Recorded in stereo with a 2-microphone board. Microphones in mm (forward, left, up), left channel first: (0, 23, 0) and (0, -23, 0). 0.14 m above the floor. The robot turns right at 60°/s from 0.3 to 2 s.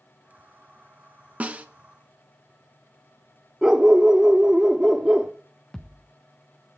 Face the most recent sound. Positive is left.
turn(degrees=20)  # may be behind; listen again after turning